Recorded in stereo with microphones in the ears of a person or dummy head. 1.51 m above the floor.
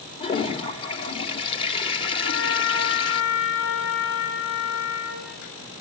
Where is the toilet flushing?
30° left (ahead or behind), 1.8 m.